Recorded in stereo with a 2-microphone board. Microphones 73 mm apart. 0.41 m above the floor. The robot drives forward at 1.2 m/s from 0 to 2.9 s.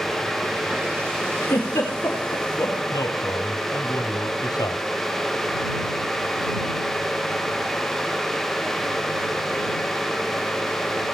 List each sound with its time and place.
1.4 s a giggle: 40° left (ahead or behind), 9 m; by 2.8 s 35° left (ahead or behind), 10 m
2.9 s a man speaking: 65° left (ahead or behind), 1.9 m